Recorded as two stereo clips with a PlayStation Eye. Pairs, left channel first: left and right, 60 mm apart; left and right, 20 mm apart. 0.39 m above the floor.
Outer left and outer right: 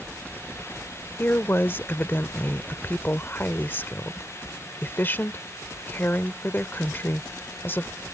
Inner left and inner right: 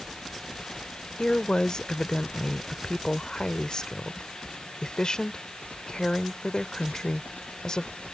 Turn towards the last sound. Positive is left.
turn(degrees=35)  # may be behind; listen again after turning